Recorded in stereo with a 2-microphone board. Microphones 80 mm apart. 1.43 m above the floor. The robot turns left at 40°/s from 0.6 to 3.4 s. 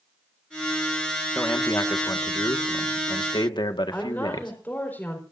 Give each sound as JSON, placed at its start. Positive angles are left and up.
{"t": 1.4, "sound": "a man speaking", "azimuth_deg": 160, "distance_m": 1.9}
{"t": 3.9, "sound": "a woman speaking", "side_deg": 20, "distance_m": 5.0}